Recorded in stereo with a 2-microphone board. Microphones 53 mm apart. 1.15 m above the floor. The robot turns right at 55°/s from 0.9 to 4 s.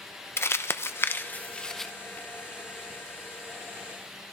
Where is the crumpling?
50° left (ahead or behind), 0.8 m; by 1.9 s 5° left (ahead or behind), 0.8 m.